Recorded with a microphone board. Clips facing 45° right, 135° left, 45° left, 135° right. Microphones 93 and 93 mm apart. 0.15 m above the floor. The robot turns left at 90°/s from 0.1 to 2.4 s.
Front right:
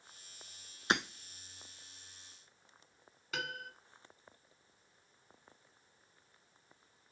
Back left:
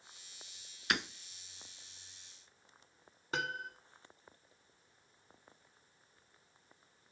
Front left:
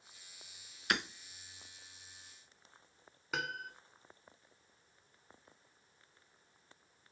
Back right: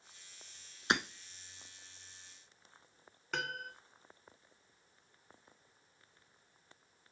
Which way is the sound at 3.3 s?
125° left.